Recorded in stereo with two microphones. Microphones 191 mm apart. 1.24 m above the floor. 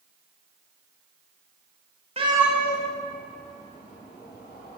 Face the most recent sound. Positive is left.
turn(degrees=55)  # may be behind; listen again after turning